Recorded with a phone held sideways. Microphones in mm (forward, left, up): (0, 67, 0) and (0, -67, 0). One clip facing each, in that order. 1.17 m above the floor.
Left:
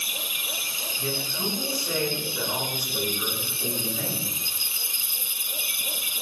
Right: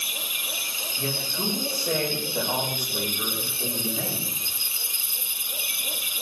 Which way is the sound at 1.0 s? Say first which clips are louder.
Right 1 dB; 65° right (ahead or behind).